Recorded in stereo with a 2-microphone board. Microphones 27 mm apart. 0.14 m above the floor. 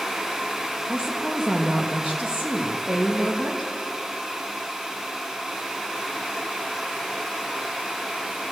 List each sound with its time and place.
0.9 s a woman speaking: 25° right (ahead or behind), 5 m